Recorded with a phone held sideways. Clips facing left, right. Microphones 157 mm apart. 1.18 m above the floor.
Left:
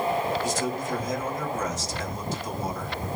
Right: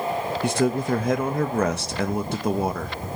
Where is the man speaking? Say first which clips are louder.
Right 6 dB; 70° right (ahead or behind), 1.4 m.